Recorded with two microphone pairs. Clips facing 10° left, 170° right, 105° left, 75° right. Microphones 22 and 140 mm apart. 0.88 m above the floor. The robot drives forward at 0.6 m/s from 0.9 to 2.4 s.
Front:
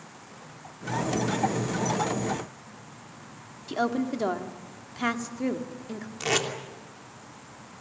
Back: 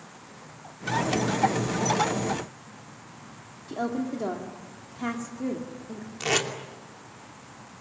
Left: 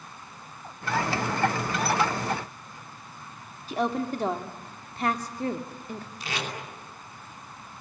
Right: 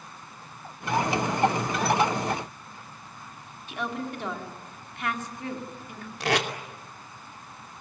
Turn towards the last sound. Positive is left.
turn(degrees=-80)